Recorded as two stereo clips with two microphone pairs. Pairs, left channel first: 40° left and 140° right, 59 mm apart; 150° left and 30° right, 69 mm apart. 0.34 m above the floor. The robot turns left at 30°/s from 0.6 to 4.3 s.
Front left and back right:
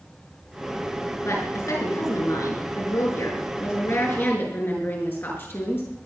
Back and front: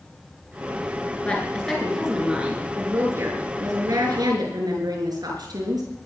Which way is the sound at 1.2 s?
80° left.